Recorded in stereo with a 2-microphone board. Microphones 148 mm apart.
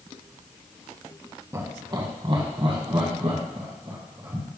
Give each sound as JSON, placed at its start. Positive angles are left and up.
{"t": 1.5, "sound": "laughter", "side_deg": -20, "distance_m": 1.3}